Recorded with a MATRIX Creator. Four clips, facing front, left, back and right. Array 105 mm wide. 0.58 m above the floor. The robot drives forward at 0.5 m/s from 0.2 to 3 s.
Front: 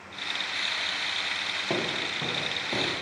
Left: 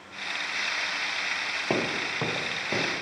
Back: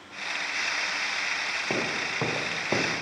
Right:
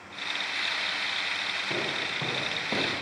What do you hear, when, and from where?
1.7 s footsteps: 95° left, 1.1 m; by 3.0 s straight behind, 2.0 m